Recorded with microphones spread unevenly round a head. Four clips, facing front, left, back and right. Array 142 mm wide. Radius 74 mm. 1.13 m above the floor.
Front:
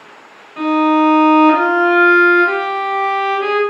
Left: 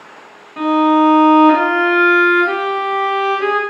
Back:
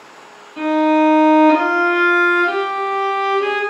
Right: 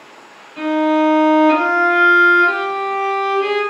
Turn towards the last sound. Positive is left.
turn(degrees=70)